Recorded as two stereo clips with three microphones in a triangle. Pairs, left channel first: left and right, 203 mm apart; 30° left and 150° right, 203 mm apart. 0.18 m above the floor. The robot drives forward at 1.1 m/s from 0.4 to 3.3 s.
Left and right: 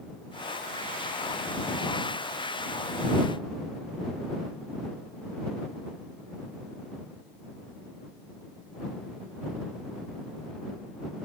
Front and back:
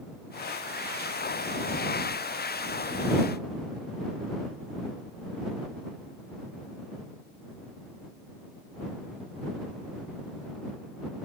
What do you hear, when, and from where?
Only background noise.